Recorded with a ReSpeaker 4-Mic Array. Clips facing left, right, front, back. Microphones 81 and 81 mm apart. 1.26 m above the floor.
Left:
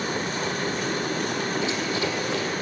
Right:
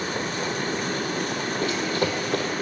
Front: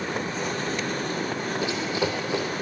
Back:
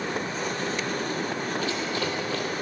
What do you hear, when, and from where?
1.6 s running footsteps: 70° right, 2.0 m